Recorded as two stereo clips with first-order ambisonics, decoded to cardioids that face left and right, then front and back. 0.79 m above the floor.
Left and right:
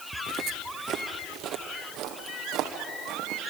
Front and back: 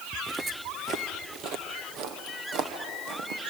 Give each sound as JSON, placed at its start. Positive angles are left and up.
{"t": 0.1, "sound": "footsteps", "azimuth_deg": -95, "distance_m": 0.8}